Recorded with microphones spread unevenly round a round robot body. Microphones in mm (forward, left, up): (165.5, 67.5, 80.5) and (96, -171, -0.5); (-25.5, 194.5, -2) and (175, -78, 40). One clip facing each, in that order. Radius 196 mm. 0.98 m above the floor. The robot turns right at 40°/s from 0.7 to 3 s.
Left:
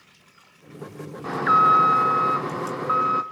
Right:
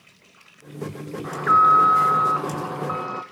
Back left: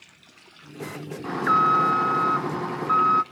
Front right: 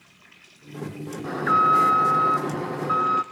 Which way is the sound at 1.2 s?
90° left.